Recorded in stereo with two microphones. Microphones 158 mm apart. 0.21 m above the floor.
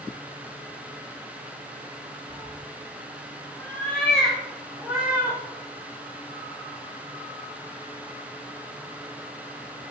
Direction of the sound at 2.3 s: 25° left (ahead or behind).